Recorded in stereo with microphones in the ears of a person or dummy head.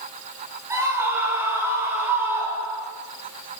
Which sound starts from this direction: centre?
A scream, at 0.7 s.